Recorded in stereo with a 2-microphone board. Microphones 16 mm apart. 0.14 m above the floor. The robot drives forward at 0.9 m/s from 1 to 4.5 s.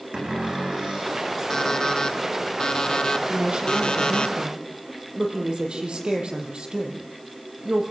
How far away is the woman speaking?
About 5.5 m.